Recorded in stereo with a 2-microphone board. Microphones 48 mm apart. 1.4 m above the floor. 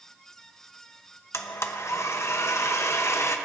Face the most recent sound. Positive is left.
turn(degrees=75)  # may be behind; listen again after turning